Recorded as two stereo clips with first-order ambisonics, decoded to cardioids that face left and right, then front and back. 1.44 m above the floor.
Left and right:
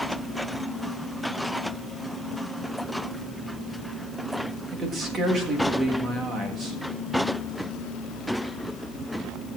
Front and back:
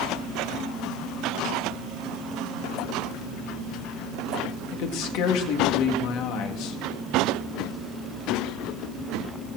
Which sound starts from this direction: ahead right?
A man speaking, at 4.7 s.